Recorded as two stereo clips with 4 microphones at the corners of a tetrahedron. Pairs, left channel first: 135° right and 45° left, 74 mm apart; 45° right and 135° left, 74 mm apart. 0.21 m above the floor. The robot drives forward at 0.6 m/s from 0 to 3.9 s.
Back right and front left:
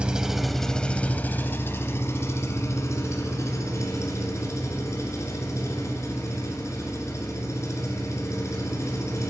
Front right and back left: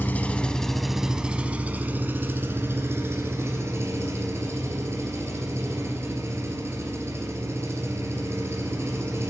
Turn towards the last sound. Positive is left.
turn(degrees=-175)